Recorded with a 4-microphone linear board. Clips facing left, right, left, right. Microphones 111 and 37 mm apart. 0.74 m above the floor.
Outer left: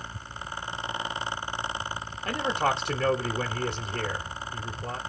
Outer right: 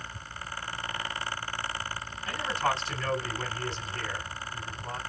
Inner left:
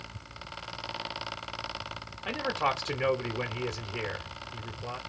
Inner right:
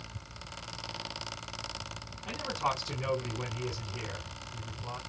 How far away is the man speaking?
About 1.6 m.